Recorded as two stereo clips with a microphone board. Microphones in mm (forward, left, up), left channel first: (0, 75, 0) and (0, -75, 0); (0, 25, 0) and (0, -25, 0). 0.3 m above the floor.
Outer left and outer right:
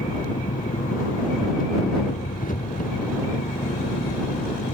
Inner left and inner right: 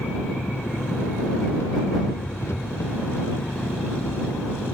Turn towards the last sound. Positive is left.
turn(degrees=65)  # may be behind; listen again after turning